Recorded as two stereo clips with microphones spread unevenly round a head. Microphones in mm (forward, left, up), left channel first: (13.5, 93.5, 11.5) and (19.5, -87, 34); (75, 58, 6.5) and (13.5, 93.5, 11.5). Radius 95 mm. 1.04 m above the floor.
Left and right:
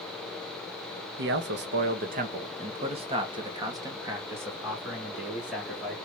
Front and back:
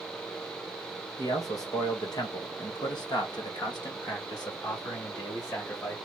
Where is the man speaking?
75° right, 1.1 m; by 6.0 s straight ahead, 2.5 m.